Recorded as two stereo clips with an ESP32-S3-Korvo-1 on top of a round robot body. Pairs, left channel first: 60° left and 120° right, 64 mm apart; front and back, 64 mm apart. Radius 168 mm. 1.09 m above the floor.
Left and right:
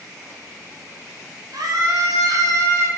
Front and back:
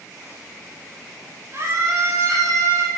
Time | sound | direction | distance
1.5 | a scream | 135° right | 1.9 m